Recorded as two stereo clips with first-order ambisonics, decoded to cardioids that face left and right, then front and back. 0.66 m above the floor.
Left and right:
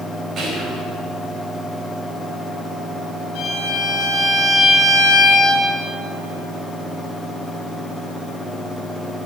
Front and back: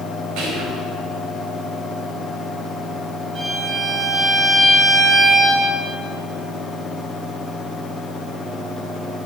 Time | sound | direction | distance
0.4 | whispering | 150° right | 4.5 m
3.4 | a violin | 120° left | 3.5 m